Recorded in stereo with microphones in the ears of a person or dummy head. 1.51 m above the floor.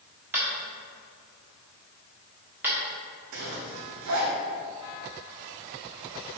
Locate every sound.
0.3 s tapping: 10° right (ahead or behind), 1.4 m
3.3 s a zipper: 65° right (ahead or behind), 1.1 m